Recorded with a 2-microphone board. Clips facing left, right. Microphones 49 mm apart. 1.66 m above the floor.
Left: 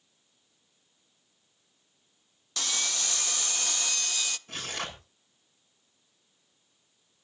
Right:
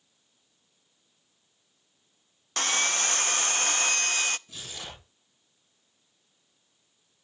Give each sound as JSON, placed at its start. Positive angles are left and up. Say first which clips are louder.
{"t": 2.6, "sound": "sawing", "louder": "right 7 dB", "side_deg": -45, "distance_m": 0.5}
{"t": 4.5, "sound": "tearing paper", "louder": "left 6 dB", "side_deg": 60, "distance_m": 7.5}